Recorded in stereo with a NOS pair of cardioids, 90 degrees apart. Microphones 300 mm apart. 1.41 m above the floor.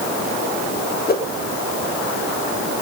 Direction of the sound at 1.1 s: 35° left.